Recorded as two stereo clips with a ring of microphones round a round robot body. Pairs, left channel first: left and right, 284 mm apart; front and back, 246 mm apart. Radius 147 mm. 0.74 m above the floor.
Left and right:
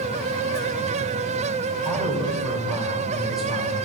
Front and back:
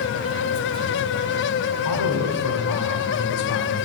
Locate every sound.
1.9 s a man speaking: straight ahead, 3 m